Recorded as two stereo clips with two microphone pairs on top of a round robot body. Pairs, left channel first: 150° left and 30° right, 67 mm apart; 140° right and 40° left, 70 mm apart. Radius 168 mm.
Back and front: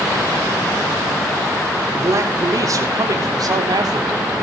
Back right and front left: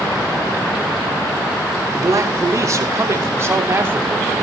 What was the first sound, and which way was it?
A man speaking, 10° left.